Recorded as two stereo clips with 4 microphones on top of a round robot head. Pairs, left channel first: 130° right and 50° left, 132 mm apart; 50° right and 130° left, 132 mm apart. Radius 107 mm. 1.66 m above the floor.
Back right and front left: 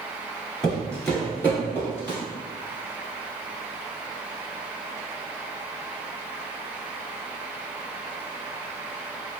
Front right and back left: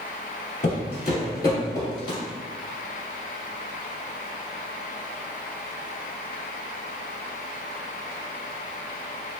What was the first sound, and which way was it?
Footsteps, 50° right.